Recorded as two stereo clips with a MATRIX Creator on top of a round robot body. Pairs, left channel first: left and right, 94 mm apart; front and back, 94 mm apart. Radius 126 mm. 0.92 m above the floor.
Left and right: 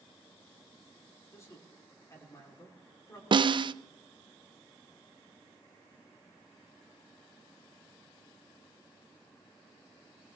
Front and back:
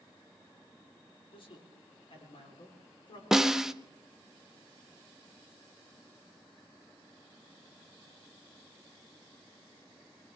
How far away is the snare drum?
About 0.6 m.